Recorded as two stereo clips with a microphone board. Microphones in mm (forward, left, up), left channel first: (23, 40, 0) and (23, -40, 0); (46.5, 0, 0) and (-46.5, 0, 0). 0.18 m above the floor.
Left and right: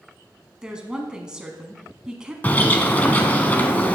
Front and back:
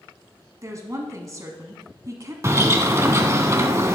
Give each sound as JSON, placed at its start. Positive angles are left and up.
{"t": 0.6, "sound": "a woman speaking", "azimuth_deg": -165, "distance_m": 1.2}
{"t": 2.4, "sound": "a bird", "azimuth_deg": 145, "distance_m": 0.8}